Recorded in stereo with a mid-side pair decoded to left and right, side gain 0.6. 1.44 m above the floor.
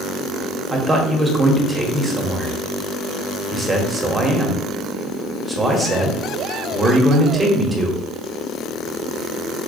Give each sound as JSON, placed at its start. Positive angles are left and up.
{"t": 0.7, "sound": "a man speaking", "azimuth_deg": -15, "distance_m": 1.1}